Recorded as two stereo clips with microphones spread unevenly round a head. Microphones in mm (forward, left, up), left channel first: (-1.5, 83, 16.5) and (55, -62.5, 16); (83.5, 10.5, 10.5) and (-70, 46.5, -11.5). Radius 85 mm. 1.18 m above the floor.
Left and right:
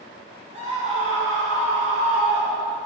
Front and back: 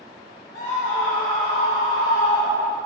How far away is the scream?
About 3 m.